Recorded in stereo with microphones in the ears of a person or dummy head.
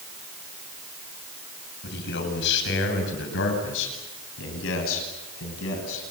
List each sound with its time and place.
1.8 s a man speaking: 70° left (ahead or behind), 8 m; by 6.0 s 85° left, 10 m